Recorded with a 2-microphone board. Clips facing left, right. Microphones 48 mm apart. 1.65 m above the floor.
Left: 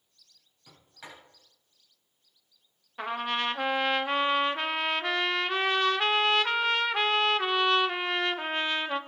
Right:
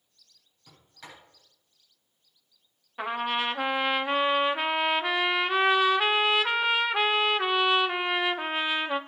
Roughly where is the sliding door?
Centre.